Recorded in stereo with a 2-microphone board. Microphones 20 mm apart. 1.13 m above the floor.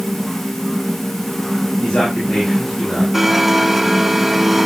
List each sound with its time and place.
1.8 s a man speaking: 80° left, 8.5 m
3.1 s a blender: centre (ahead or behind), 1.8 m